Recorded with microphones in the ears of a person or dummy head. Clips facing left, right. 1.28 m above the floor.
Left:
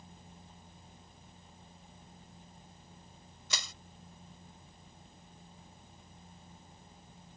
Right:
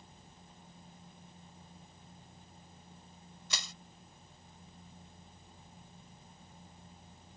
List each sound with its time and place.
3.5 s crushing: 80° left